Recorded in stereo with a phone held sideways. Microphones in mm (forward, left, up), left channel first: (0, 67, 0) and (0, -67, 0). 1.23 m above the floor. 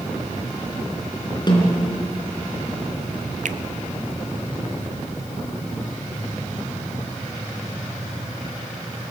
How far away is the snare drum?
About 3.5 m.